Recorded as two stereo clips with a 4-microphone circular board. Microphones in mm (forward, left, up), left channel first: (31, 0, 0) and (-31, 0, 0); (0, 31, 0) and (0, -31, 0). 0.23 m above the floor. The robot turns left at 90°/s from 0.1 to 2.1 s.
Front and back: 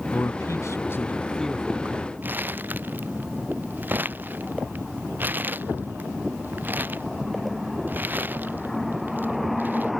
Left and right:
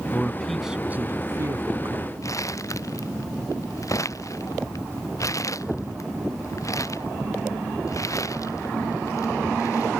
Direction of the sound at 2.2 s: 120° left.